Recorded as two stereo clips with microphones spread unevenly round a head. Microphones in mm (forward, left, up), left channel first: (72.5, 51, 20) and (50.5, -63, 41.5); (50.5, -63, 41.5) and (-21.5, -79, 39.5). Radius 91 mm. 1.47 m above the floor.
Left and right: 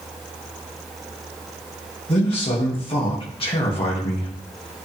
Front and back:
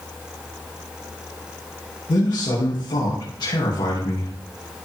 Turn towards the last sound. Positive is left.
turn(degrees=45)